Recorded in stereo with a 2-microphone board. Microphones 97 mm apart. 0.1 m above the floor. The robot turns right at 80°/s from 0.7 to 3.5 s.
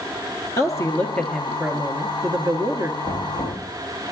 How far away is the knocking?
About 4.5 m.